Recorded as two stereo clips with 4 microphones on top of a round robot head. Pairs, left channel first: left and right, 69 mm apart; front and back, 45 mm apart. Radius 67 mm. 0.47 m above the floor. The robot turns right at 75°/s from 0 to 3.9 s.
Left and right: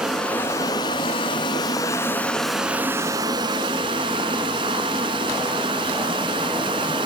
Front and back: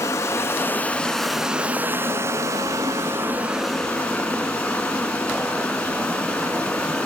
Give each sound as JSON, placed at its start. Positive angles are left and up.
{"t": 0.0, "sound": "running water", "azimuth_deg": -10, "distance_m": 0.8}